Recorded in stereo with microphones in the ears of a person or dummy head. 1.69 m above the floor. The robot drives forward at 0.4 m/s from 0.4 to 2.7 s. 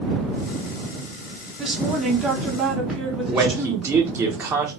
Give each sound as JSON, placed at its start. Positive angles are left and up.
{"t": 1.6, "sound": "a woman speaking", "side_deg": -5, "distance_m": 0.8}
{"t": 3.3, "sound": "a man speaking", "side_deg": -10, "distance_m": 0.5}